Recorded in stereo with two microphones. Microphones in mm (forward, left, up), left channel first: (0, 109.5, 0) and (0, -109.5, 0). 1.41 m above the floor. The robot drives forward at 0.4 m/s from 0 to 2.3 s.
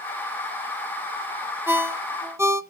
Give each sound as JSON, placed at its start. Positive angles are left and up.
{"t": 1.7, "sound": "a ringtone", "side_deg": -10, "distance_m": 0.6}